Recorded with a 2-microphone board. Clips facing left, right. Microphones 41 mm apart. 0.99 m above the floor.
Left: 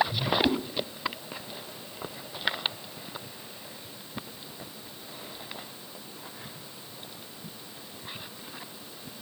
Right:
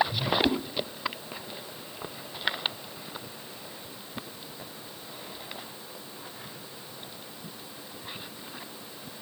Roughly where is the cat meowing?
Centre.